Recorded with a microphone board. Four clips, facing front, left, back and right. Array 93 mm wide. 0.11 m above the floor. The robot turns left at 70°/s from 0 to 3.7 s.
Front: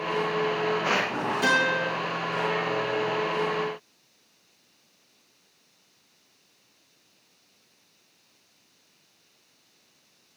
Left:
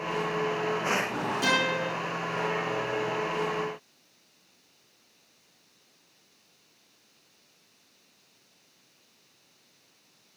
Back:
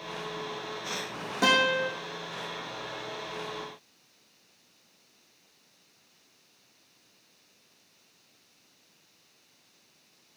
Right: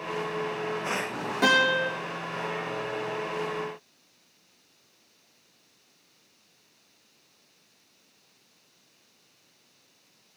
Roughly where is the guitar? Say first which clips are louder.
Right 6 dB, back 1 dB; behind right.